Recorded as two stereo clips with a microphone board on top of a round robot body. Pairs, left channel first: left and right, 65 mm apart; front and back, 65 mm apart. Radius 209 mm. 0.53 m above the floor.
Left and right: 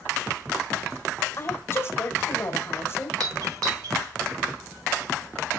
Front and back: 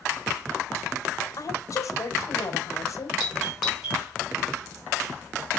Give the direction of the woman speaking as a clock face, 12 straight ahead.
11 o'clock.